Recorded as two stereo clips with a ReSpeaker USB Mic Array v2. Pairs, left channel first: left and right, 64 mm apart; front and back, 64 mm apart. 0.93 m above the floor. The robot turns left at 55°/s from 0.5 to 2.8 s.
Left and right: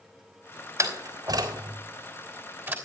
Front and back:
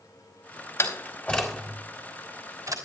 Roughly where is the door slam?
Ahead right.